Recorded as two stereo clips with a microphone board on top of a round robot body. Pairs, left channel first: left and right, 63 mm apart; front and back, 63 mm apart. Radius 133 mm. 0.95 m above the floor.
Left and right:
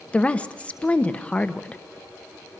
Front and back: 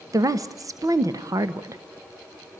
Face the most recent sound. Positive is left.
turn(degrees=160)